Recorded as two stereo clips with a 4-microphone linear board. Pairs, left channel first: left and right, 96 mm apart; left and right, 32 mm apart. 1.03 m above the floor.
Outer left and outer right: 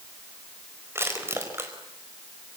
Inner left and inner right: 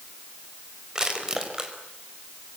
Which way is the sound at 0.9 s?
25° right (ahead or behind).